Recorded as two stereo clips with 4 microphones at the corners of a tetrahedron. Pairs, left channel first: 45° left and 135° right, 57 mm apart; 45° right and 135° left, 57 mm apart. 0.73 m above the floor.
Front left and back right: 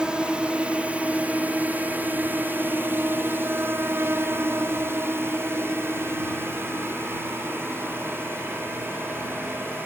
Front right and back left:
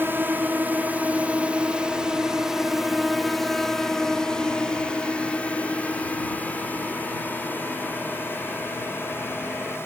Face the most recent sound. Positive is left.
turn(degrees=-90)